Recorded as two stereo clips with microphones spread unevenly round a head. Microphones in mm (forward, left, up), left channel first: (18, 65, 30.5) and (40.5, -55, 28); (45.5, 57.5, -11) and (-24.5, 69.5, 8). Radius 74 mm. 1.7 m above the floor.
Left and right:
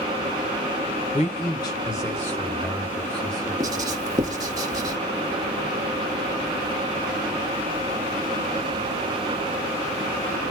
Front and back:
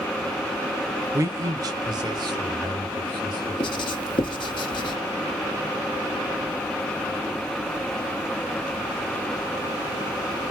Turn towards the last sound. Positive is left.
turn(degrees=-20)